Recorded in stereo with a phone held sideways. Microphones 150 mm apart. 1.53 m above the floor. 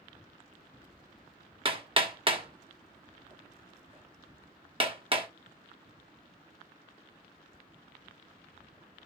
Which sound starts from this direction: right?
Hammering, at 1.6 s.